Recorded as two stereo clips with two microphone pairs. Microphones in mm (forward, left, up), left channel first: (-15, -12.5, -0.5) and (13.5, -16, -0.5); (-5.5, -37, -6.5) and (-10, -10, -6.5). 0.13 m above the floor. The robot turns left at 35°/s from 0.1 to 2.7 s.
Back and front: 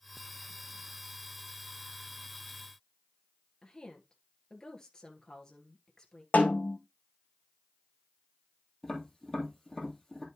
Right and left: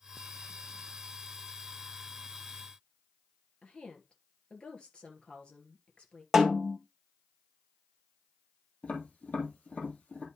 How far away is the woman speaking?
About 2 m.